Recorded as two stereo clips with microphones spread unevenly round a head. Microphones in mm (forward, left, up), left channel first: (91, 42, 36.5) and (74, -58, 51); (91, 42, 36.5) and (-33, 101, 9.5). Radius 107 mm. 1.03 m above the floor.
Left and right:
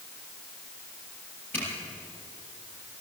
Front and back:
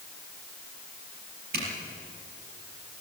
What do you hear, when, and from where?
1.5 s a zipper: 160° left, 5 m